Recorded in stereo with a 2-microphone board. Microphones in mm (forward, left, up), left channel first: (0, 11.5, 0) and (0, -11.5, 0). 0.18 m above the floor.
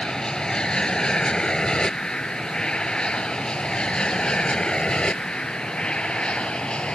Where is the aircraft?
35° left (ahead or behind); by 7.0 s 50° left (ahead or behind).